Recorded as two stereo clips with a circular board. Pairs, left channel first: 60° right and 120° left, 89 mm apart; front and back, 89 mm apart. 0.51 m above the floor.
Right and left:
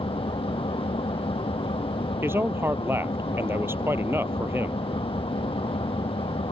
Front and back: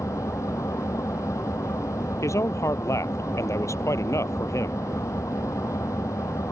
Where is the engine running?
55° right.